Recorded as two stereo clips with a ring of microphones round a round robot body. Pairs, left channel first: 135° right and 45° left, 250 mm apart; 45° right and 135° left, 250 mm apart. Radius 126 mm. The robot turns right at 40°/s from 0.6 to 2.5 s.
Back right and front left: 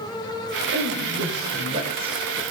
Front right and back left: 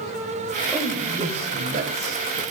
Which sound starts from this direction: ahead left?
A man speaking, at 0.7 s.